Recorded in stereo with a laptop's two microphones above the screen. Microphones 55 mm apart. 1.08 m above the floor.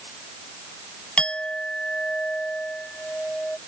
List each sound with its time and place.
1.2 s a clink: 20° left (ahead or behind)